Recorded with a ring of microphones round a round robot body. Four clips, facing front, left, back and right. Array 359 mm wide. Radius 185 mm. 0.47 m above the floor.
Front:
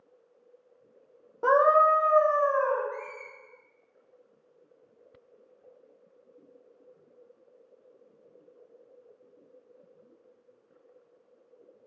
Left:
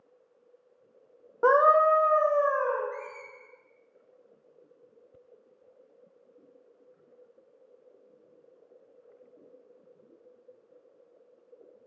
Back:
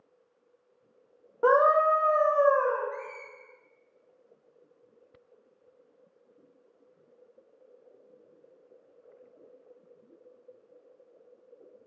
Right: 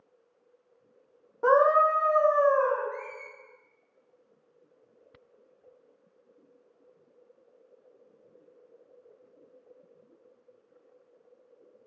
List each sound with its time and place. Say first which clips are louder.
1.4 s a scream: left 1 dB, front 1 dB; 105° left, 0.8 m; by 2.8 s 160° right, 0.9 m
2.9 s a squeak: right 1 dB, even; 85° left, 0.7 m